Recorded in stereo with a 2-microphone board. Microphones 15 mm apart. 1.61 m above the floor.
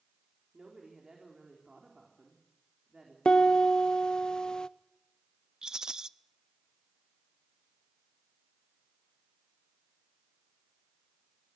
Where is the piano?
55° left (ahead or behind), 0.6 m.